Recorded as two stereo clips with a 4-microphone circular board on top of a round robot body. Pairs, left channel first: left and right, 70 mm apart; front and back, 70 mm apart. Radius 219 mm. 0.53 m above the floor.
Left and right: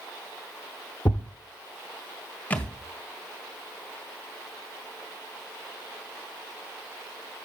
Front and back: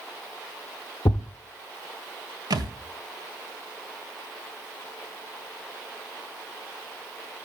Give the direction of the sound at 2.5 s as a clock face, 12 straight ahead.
7 o'clock.